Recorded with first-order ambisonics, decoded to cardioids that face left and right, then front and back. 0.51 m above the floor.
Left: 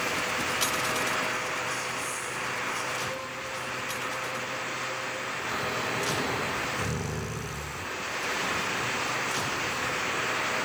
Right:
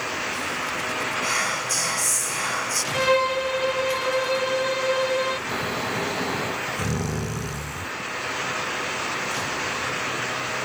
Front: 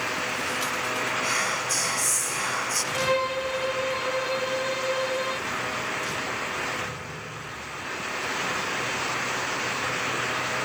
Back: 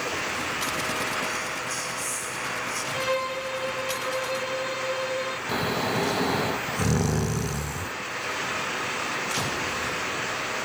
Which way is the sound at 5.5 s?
160° right.